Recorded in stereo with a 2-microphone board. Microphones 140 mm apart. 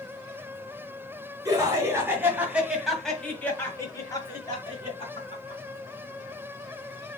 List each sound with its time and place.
1.4 s laughter: 25° right (ahead or behind), 1.9 m; by 5.6 s 45° left (ahead or behind), 2 m